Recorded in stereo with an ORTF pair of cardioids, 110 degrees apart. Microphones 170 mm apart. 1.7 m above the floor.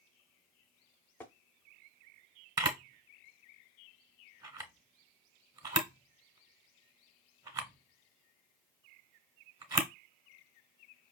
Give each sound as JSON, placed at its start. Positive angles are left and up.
{"t": 1.2, "sound": "tapping", "azimuth_deg": 10, "distance_m": 0.7}
{"t": 2.6, "sound": "a camera shutter", "azimuth_deg": -20, "distance_m": 0.9}